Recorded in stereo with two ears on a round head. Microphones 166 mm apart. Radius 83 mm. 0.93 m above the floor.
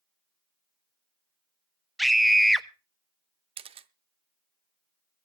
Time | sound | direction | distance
2.0 | a scream | centre (ahead or behind) | 0.6 m
3.6 | a camera shutter | 30° right (ahead or behind) | 0.6 m